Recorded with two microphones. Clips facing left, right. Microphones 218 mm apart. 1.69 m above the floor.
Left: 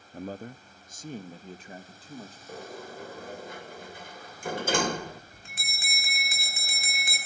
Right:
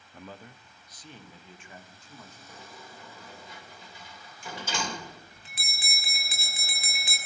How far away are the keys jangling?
No keys jangling in this recording.